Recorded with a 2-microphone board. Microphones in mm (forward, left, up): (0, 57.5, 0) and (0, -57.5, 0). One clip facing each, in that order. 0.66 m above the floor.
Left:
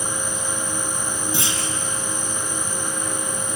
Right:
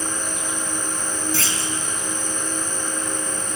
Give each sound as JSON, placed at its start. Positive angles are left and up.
{"t": 0.0, "sound": "an insect", "side_deg": -20, "distance_m": 1.4}
{"t": 1.3, "sound": "a clunk", "side_deg": 20, "distance_m": 2.5}